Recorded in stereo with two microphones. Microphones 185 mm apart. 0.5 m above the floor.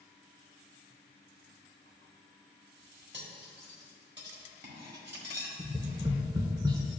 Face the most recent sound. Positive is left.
turn(degrees=-25)  # may be behind; listen again after turning